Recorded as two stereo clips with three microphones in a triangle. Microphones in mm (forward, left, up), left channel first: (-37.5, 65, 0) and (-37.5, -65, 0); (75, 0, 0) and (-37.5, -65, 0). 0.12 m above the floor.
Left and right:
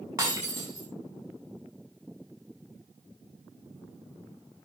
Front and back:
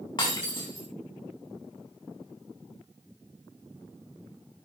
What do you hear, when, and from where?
0.2 s breaking glass: 20° right, 8 m